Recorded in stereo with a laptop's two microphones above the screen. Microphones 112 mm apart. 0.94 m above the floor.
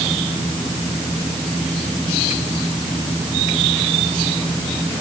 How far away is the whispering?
No whispering in this recording.